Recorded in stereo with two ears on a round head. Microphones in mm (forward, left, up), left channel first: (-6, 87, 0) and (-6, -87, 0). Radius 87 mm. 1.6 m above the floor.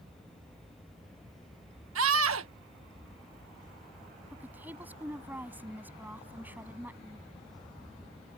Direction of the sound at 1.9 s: 85° right.